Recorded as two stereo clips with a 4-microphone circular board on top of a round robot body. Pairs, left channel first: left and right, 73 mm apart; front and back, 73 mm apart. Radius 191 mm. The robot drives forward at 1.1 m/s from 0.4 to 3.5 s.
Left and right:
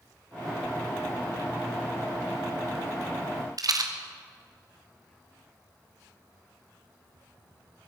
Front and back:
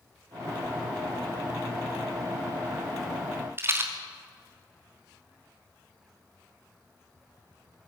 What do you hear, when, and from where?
3.6 s a rattle: 120° right, 2.5 m